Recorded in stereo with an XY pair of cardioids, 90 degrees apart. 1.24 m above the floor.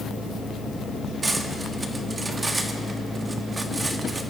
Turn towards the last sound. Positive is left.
turn(degrees=-30)